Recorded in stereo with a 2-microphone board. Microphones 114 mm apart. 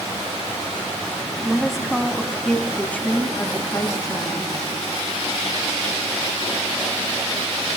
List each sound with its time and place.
1.4 s a woman speaking: 5° right (ahead or behind), 2.5 m; by 4.5 s 40° left (ahead or behind), 2.5 m